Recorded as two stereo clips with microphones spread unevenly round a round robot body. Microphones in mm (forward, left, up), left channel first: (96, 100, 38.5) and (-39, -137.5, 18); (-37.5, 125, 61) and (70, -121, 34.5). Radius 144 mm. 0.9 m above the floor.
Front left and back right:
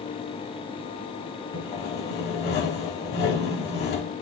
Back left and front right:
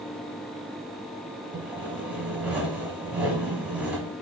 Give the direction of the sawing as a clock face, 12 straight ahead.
11 o'clock.